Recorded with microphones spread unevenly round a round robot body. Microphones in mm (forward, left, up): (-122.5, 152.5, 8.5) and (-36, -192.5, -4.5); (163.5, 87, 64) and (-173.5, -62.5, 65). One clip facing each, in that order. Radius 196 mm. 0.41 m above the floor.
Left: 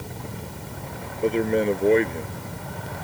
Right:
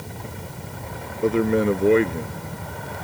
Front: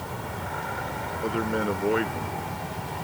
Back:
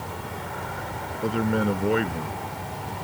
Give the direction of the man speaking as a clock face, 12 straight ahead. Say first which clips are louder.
Right 2 dB, back 3 dB; 5 o'clock.